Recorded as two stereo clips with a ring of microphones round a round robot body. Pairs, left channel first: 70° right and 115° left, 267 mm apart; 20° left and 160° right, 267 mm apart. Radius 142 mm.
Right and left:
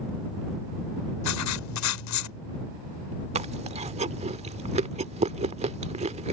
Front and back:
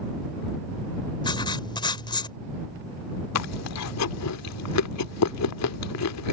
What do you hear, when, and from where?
1.2 s writing: 50° right
3.4 s chewing: 45° left